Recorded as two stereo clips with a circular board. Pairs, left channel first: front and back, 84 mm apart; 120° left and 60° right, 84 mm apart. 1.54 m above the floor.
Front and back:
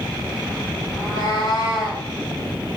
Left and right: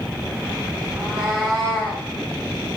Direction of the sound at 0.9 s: 15° left.